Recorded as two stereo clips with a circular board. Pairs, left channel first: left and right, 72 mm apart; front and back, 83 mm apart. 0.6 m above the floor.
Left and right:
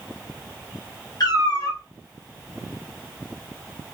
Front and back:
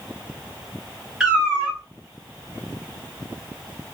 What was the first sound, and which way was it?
A cat meowing, 100° left.